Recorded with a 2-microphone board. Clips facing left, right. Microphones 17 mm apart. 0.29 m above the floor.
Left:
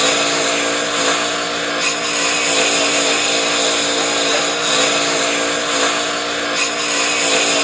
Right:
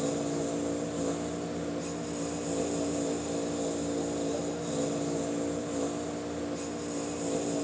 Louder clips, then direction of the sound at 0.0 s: Left 16 dB; 80° left.